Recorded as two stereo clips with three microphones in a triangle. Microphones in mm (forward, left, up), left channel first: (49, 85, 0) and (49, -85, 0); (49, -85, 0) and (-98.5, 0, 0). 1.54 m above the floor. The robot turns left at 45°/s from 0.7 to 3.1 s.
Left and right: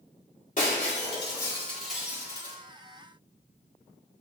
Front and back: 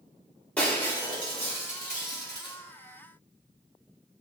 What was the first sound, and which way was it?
Breaking glass, 55° left.